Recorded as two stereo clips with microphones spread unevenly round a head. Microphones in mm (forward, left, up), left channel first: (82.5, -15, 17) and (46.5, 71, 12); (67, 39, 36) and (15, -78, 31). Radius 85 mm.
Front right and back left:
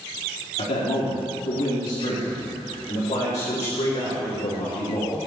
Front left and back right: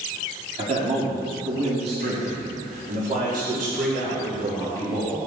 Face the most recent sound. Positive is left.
turn(degrees=-110)